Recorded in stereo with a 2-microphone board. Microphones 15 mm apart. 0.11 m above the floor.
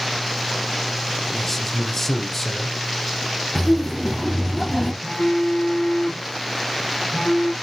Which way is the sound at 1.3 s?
15° left (ahead or behind).